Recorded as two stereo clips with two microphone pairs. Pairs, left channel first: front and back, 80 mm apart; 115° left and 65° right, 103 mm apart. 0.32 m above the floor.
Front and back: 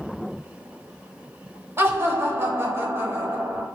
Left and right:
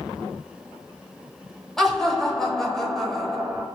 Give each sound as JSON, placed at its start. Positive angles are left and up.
{"t": 1.8, "sound": "laughter", "azimuth_deg": -160, "distance_m": 1.0}